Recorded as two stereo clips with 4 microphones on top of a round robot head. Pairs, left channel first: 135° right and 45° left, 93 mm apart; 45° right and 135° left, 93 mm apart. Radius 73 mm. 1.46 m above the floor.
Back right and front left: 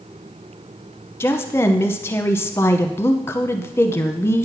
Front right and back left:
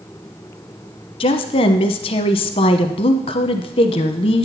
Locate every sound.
1.2 s a woman speaking: 70° right, 0.8 m